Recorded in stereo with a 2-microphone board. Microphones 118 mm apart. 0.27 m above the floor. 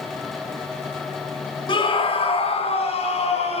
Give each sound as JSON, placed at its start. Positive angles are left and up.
{"t": 1.7, "sound": "a scream", "side_deg": 45, "distance_m": 1.5}